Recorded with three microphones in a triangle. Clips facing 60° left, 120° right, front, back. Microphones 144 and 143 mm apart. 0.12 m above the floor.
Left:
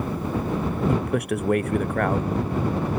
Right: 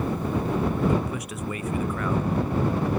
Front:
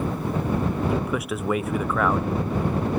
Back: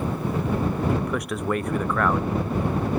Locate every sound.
0.9 s a man speaking: 85° left